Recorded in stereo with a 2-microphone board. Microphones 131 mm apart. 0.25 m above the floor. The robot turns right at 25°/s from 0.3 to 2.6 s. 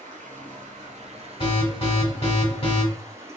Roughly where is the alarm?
Left.